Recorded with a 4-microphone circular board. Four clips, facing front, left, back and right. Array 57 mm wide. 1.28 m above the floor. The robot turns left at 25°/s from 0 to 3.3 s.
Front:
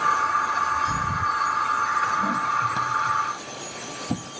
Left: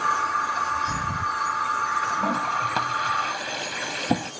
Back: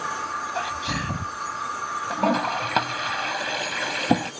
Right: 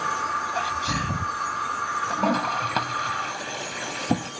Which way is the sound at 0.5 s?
145° right.